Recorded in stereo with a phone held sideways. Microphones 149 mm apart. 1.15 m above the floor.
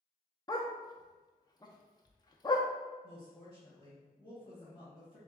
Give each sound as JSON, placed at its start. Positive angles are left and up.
{"t": 0.5, "sound": "a dog barking", "side_deg": 25, "distance_m": 0.6}
{"t": 3.0, "sound": "a woman speaking", "side_deg": 30, "distance_m": 1.9}